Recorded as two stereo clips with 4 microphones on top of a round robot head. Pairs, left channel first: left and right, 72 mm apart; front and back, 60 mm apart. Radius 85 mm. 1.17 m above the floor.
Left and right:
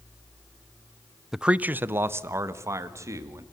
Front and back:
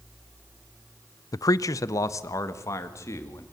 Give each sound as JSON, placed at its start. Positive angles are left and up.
{"t": 1.3, "sound": "a man speaking", "azimuth_deg": -5, "distance_m": 0.5}